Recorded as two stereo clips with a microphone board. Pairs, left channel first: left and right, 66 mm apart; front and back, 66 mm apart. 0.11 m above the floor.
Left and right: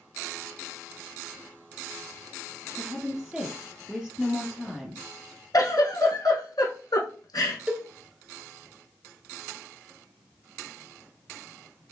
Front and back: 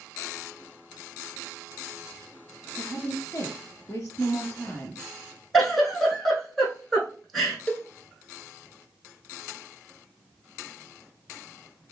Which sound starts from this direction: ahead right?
A cowbell, at 7.7 s.